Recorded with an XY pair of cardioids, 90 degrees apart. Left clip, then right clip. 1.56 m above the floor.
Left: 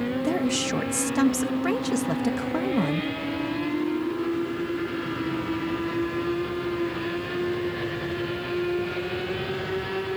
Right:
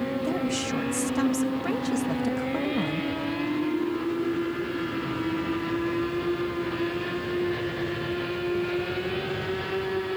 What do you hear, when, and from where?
0.2 s a woman speaking: 35° left